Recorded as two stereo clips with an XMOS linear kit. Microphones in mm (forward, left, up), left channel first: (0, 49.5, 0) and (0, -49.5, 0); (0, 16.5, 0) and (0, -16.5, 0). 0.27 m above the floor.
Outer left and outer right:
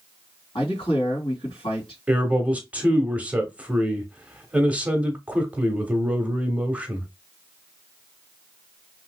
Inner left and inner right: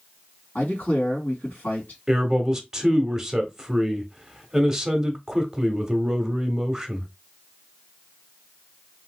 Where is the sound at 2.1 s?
15° right (ahead or behind), 1.0 m.